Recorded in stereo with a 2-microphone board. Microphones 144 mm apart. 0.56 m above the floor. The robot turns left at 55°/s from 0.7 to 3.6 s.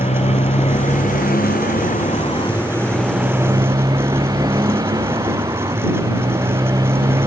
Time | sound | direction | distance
0.0 | a motorcycle | 130° left | ?